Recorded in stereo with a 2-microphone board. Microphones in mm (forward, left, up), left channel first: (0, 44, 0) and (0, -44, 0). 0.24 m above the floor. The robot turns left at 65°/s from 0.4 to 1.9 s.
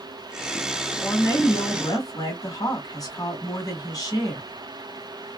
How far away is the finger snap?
I don't hear a finger snap.